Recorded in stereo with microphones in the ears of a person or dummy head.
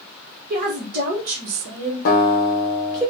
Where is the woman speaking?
45° right (ahead or behind), 1.0 m; by 3.0 s 20° right (ahead or behind), 1.0 m.